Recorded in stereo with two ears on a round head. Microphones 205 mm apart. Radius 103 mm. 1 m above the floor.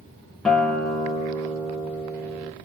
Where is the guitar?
5° left (ahead or behind), 0.6 m.